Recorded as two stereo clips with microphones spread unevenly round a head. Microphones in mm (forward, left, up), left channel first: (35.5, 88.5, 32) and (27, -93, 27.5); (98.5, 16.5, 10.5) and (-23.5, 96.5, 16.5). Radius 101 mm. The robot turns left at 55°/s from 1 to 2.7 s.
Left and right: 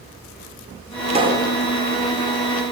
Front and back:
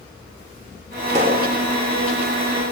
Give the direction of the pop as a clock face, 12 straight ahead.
5 o'clock.